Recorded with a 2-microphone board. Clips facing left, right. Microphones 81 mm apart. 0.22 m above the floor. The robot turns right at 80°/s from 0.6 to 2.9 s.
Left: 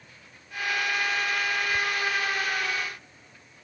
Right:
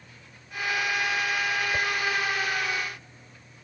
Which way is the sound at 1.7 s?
35° right (ahead or behind).